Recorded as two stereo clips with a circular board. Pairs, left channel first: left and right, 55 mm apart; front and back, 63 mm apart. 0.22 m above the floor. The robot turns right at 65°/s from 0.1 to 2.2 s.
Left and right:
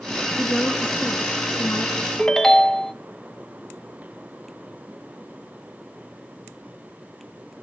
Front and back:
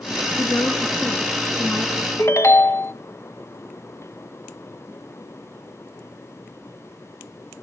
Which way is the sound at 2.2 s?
10° left.